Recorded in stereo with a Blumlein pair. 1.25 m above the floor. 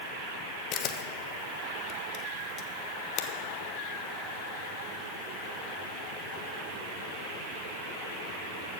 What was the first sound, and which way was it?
A camera shutter, 35° left.